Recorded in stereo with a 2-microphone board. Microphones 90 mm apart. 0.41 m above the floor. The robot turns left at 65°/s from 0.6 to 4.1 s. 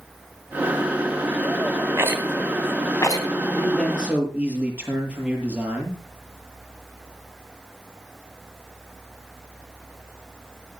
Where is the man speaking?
25° left, 8 m; by 6.0 s 10° right, 8 m.